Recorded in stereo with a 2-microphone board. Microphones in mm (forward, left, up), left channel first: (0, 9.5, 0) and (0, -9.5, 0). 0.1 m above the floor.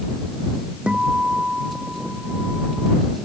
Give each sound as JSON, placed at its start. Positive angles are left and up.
{"t": 0.9, "sound": "a guitar", "side_deg": -70}